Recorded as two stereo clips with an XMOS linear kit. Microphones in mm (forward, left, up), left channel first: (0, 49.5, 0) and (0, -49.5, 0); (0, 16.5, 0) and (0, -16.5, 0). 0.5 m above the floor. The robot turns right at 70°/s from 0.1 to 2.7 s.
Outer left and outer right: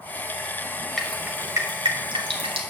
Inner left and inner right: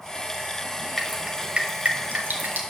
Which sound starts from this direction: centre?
Dripping, at 1.0 s.